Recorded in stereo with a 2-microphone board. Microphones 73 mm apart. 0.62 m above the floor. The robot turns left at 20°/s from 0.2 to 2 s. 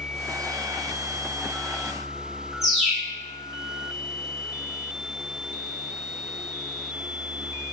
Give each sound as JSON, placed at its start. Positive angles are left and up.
{"t": 2.6, "sound": "a bird", "side_deg": -10, "distance_m": 1.1}